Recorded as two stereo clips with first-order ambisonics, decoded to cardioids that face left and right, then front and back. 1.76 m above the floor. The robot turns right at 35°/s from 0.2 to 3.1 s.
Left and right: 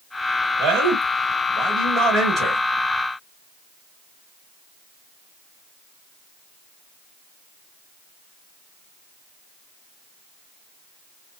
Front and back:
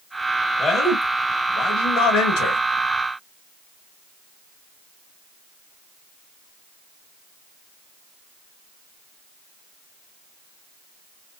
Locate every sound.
0.6 s a man speaking: 80° right, 1.2 m; by 2.6 s 10° right, 1.2 m